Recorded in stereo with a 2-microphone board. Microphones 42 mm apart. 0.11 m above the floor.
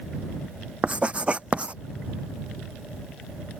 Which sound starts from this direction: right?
Writing, at 0.8 s.